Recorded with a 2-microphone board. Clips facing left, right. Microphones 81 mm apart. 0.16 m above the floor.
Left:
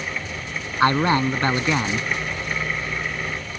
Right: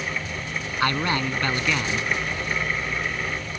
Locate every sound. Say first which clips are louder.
0.8 s a man speaking: left 6 dB; 30° left (ahead or behind)